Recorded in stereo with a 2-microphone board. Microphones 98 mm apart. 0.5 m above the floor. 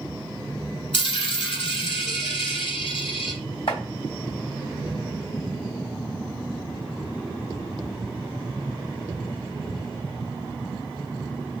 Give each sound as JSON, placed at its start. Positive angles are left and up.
{"t": 0.9, "sound": "a dropped coin", "side_deg": 70, "distance_m": 0.9}
{"t": 3.7, "sound": "chopping", "side_deg": 65, "distance_m": 2.0}